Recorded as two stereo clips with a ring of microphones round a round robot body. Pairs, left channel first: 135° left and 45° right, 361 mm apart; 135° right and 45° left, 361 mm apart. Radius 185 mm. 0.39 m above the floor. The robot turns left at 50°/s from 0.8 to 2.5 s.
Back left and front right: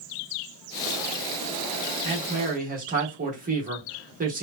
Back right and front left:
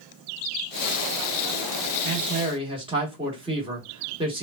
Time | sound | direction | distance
2.0 | a man speaking | 10° left | 1.0 m